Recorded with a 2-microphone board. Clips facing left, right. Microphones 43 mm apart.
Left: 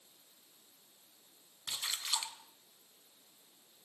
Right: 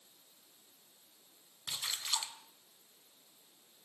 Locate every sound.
1.7 s a splash: 10° left (ahead or behind), 2.5 m